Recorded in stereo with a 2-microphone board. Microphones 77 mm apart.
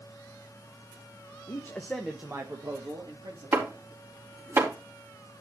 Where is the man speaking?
40° left (ahead or behind), 1.2 m; by 3.7 s 75° right (ahead or behind), 3 m.